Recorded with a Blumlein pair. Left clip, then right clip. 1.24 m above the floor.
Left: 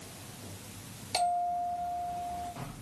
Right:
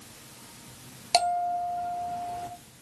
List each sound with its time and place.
1.1 s a bell: 35° right, 1.2 m